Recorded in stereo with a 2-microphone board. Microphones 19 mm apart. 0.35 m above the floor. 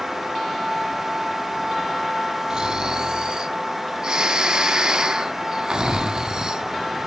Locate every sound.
2.5 s snoring: 35° right (ahead or behind), 0.5 m